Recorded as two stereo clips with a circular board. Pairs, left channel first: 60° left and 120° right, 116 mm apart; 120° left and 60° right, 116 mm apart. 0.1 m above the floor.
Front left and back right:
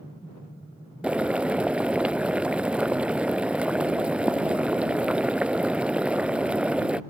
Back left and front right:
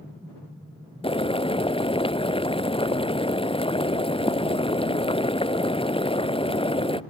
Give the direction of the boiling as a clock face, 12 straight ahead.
7 o'clock.